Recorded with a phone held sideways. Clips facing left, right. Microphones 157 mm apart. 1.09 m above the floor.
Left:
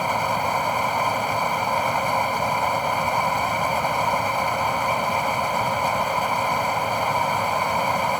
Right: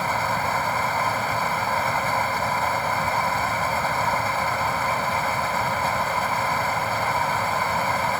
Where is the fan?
15° left (ahead or behind).